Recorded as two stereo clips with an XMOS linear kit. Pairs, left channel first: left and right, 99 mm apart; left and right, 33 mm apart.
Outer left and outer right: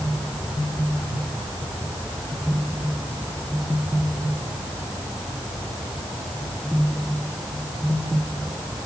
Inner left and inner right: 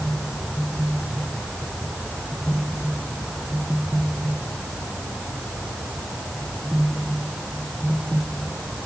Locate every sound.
Only background noise.